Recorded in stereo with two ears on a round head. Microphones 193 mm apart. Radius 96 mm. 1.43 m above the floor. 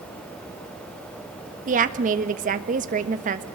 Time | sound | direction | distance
1.7 | a woman speaking | 35° right (ahead or behind) | 1.5 m